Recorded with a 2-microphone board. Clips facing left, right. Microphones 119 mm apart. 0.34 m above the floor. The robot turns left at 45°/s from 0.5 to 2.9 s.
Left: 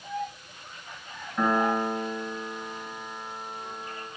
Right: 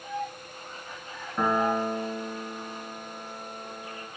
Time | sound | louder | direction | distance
1.4 | a piano | left 1 dB | 15° right | 0.7 m